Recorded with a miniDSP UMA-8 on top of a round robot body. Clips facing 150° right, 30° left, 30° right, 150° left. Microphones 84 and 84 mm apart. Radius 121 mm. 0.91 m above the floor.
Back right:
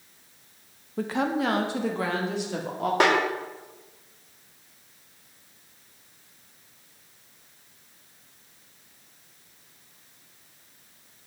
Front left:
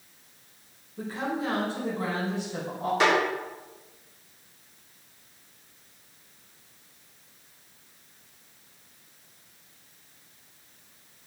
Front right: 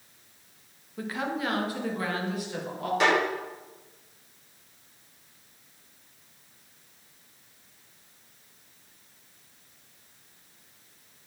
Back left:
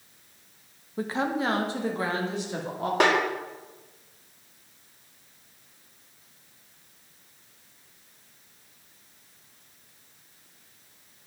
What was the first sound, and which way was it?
A woman speaking, 150° right.